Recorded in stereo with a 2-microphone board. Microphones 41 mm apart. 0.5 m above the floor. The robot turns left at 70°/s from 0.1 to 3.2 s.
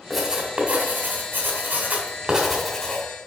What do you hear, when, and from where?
0.1 s writing: 5° right (ahead or behind), 1.5 m; by 3.0 s 25° left (ahead or behind), 1.5 m